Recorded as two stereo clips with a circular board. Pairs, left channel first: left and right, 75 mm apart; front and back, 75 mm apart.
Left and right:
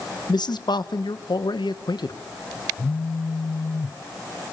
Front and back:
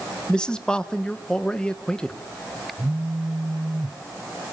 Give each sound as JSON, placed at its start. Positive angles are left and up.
{"t": 0.3, "sound": "a man speaking", "azimuth_deg": 80, "distance_m": 1.4}
{"t": 2.8, "sound": "a phone buzzing", "azimuth_deg": 110, "distance_m": 0.6}